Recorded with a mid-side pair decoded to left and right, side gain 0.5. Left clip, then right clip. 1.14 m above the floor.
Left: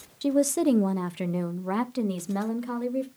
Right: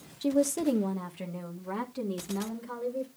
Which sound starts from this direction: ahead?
A woman speaking, at 0.2 s.